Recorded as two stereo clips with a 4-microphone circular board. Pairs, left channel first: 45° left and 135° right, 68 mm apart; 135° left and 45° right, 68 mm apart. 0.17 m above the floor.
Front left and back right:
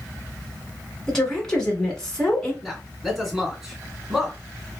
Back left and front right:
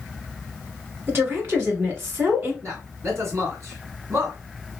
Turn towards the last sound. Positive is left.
turn(degrees=-45)